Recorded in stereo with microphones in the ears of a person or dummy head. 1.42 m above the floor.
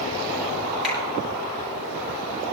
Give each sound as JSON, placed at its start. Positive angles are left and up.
{"t": 0.8, "sound": "a finger snap", "side_deg": -5, "distance_m": 9.0}